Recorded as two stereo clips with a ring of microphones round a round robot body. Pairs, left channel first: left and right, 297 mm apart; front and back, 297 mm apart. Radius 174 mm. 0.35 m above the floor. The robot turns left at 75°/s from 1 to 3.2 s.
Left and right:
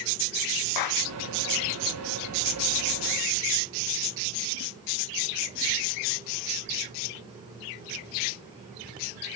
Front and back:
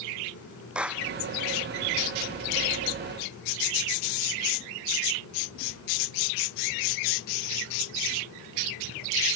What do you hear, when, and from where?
0.8 s a clap: 95° left; by 1.1 s 90° left